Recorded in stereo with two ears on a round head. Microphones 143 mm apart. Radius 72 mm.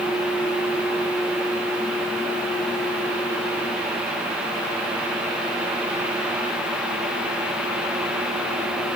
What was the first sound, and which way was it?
Only background noise.